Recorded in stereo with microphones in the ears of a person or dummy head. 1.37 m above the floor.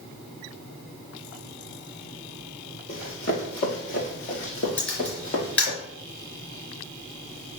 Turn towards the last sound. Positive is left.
turn(degrees=5)  # may be behind; listen again after turning